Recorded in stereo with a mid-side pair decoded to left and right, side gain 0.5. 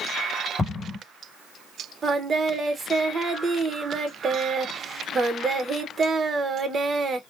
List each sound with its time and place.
0.6 s an explosion: 25° left, 1.1 m
2.0 s singing: 35° right, 0.7 m